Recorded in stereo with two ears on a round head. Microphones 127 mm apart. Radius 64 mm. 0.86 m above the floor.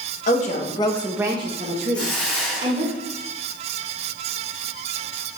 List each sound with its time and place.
0.3 s a woman speaking: 60° left (ahead or behind), 0.9 m; by 2.9 s 75° right (ahead or behind), 1.7 m
1.9 s a hiss: 10° left (ahead or behind), 1.3 m